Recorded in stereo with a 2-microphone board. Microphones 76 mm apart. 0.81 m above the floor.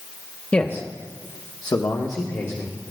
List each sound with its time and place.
0.5 s a man speaking: 20° left (ahead or behind), 0.9 m; by 2.8 s 50° left (ahead or behind), 2 m